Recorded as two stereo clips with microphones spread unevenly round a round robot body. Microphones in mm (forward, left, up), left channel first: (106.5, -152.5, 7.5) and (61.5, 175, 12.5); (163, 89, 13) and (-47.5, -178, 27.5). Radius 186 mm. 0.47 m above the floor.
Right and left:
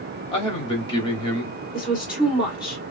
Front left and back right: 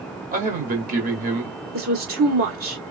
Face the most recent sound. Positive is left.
turn(degrees=-175)